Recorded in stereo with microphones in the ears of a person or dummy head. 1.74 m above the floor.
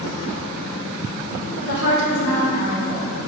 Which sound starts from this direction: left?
A woman speaking, at 1.6 s.